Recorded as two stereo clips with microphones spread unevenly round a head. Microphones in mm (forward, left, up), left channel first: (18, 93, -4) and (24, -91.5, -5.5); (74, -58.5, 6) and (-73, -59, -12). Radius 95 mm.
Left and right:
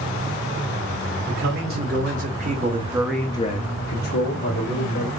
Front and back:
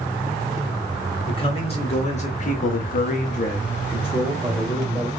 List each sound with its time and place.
1.3 s a man speaking: 50° right, 1.7 m; by 5.1 s 100° left, 1.5 m